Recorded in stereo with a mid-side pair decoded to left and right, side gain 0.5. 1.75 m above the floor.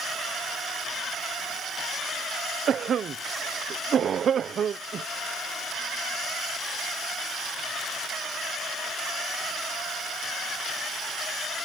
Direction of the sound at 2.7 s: 50° right.